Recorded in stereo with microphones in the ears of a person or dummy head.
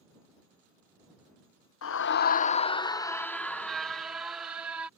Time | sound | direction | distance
1.8 | a scream | 80° left | ?